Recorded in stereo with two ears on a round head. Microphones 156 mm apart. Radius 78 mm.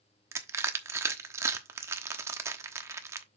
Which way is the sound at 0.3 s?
15° right (ahead or behind).